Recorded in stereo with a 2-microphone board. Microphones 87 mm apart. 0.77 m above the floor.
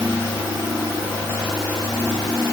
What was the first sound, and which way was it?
Only background noise.